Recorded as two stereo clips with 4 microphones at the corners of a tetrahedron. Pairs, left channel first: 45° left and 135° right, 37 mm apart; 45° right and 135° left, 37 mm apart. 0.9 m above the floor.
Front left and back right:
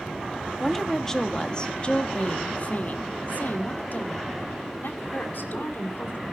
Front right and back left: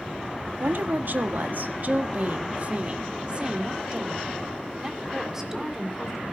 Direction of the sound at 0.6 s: 125° left.